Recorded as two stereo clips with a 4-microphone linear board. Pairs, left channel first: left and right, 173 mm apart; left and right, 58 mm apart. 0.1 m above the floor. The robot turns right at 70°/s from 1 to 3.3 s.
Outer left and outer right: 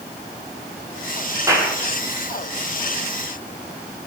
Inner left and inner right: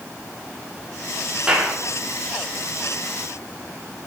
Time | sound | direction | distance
1.5 | a clap | 20° right (ahead or behind) | 3.5 m